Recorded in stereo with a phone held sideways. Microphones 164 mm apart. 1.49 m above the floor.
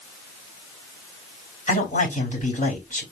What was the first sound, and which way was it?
A man speaking, 55° left (ahead or behind).